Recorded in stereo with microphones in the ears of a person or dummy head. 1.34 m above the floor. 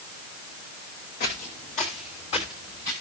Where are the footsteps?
55° left (ahead or behind), 2.5 m; by 2.9 s 20° left (ahead or behind), 3 m.